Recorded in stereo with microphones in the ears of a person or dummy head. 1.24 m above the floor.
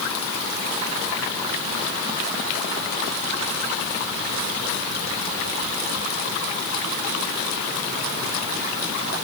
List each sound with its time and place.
Only background noise.